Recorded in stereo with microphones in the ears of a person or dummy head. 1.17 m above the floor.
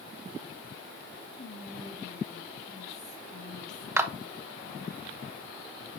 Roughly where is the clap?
Centre.